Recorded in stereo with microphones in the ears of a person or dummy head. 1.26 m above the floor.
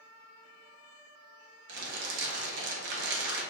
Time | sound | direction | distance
1.7 | crumpling | 60° right (ahead or behind) | 1.0 m